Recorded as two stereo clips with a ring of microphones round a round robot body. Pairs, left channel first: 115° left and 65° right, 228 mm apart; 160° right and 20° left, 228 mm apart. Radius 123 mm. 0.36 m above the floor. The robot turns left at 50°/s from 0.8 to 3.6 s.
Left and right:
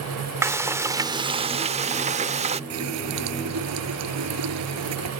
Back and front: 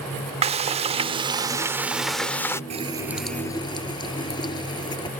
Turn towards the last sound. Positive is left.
turn(degrees=-85)